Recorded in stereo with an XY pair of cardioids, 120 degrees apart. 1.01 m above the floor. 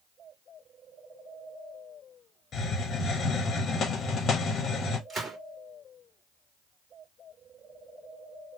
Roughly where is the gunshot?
Ahead right.